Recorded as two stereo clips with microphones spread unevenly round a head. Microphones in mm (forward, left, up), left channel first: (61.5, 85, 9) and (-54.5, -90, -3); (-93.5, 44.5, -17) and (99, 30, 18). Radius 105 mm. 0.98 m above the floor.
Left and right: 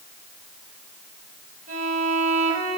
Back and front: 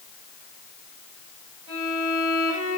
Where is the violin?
70° right, 5 m.